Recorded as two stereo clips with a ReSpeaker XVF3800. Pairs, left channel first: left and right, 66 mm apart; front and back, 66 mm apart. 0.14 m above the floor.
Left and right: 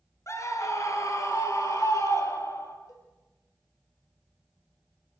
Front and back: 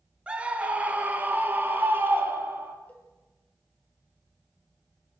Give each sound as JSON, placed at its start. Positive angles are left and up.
{"t": 0.3, "sound": "a scream", "azimuth_deg": 110, "distance_m": 2.5}
{"t": 2.9, "sound": "a cowbell", "azimuth_deg": 65, "distance_m": 4.0}